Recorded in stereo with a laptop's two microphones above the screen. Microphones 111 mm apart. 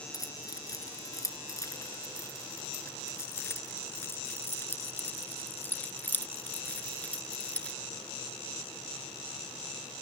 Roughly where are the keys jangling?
Left.